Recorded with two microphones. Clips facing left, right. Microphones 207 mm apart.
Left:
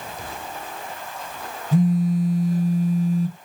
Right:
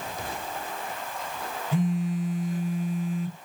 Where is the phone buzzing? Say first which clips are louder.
Left 7 dB; 40° left (ahead or behind), 0.9 m.